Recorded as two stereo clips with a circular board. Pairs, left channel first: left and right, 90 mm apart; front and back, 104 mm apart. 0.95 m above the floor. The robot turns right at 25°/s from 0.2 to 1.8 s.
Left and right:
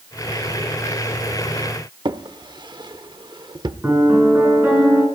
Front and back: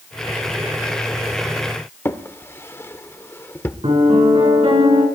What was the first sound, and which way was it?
A drawer, 65° right.